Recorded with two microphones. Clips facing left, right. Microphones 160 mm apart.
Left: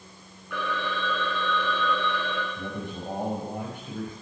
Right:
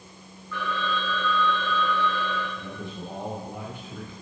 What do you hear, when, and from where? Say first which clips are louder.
0.5 s a phone ringing: right 1 dB; 75° left (ahead or behind), 6.5 m
2.6 s a man speaking: left 2 dB; 45° left (ahead or behind), 6 m